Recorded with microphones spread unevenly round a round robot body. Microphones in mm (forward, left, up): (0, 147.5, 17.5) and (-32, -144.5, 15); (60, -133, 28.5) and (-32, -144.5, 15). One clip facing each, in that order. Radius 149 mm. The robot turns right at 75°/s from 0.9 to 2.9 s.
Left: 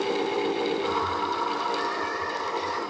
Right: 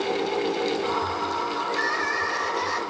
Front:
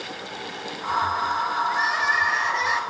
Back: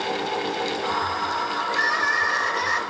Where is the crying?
155° right, 4 m; by 2.8 s 70° right, 4 m.